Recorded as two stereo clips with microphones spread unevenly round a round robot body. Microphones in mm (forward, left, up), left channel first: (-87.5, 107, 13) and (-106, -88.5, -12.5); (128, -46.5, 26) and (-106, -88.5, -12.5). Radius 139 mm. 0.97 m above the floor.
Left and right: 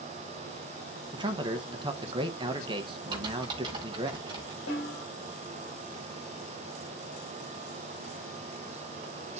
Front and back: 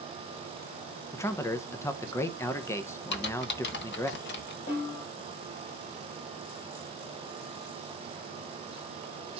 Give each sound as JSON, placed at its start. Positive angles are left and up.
{"t": 1.1, "sound": "a man speaking", "azimuth_deg": -75, "distance_m": 0.7}
{"t": 3.1, "sound": "typing on a keyboard", "azimuth_deg": -20, "distance_m": 1.3}
{"t": 4.7, "sound": "a snare drum", "azimuth_deg": 70, "distance_m": 5.5}